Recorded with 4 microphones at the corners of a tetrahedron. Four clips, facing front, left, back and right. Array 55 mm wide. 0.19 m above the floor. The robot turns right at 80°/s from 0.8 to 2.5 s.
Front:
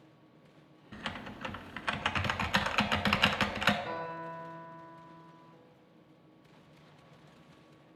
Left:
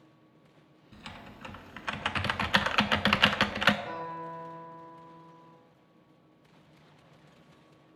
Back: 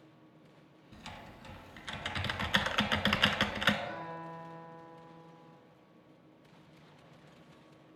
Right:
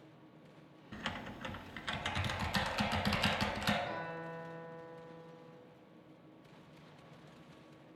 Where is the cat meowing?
No cat meowing in this recording.